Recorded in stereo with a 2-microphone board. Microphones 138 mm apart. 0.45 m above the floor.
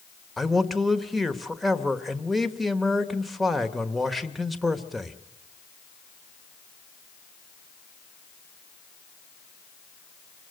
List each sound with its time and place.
0.4 s a man speaking: centre (ahead or behind), 1.3 m